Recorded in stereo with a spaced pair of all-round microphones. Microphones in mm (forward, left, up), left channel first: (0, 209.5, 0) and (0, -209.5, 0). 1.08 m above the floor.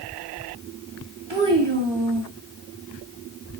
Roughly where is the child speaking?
Right.